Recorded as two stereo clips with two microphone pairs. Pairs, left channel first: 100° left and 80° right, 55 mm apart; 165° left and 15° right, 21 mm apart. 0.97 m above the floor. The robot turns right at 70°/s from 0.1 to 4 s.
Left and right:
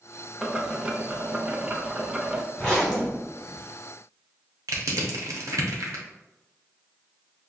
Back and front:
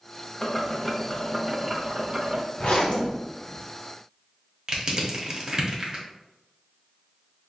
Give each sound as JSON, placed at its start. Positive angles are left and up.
{"t": 0.4, "sound": "boiling", "azimuth_deg": -155, "distance_m": 0.5}
{"t": 2.6, "sound": "a zipper", "azimuth_deg": 165, "distance_m": 1.7}
{"t": 4.7, "sound": "crushing", "azimuth_deg": -75, "distance_m": 0.9}